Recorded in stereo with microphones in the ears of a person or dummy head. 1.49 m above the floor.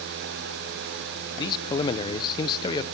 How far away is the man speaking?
About 0.8 m.